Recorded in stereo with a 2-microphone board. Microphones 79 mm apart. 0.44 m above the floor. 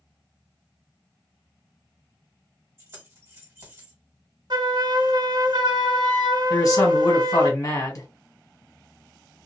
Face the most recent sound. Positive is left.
turn(degrees=40)  # may be behind; listen again after turning